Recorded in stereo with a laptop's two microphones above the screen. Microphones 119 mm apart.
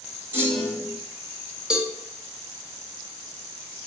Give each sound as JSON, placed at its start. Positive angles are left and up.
{"t": 0.3, "sound": "a clunk", "side_deg": -20, "distance_m": 1.2}
{"t": 1.7, "sound": "a cowbell", "side_deg": -5, "distance_m": 0.6}